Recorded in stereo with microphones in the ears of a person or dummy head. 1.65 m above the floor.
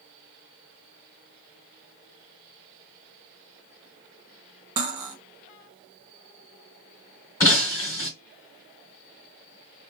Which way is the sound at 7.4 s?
15° left (ahead or behind).